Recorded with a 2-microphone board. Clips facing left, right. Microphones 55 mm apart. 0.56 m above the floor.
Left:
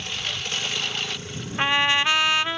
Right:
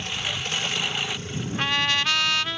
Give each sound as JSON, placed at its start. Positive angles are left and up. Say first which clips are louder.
{"t": 0.0, "sound": "a lawn mower", "louder": "right 1 dB", "side_deg": -15}
{"t": 1.6, "sound": "a trumpet", "louder": "left 4 dB", "side_deg": 20}